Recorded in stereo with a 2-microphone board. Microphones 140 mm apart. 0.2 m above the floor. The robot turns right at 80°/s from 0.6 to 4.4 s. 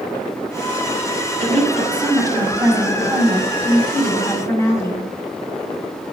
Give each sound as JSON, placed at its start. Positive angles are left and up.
{"t": 1.4, "sound": "a woman speaking", "azimuth_deg": 160, "distance_m": 1.6}